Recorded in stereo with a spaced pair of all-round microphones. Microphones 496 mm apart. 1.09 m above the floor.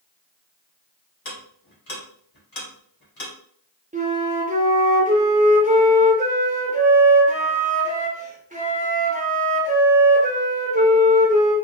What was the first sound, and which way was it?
Ticking, 45° left (ahead or behind).